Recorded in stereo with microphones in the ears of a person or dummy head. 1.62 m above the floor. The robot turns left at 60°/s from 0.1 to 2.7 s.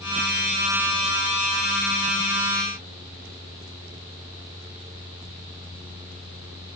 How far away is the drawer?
I don't hear a drawer.